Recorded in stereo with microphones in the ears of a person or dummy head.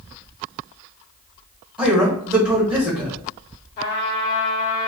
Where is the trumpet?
25° left (ahead or behind), 1.0 m.